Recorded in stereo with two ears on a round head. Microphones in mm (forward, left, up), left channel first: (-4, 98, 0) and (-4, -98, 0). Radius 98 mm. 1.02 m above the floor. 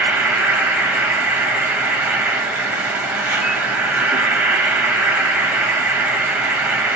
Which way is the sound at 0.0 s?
10° right (ahead or behind).